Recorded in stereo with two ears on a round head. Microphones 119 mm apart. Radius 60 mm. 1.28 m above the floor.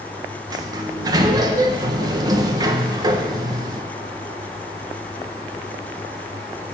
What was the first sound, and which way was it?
A sliding door, 30° right (ahead or behind).